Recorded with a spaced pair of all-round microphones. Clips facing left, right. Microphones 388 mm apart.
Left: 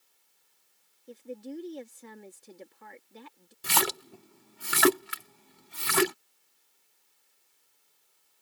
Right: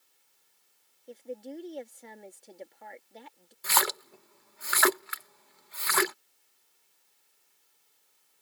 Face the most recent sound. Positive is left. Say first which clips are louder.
# left 2 dB
turn(degrees=45)  # may be behind; listen again after turning